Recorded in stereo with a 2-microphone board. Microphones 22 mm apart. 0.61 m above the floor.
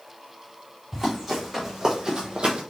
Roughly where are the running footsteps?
Centre.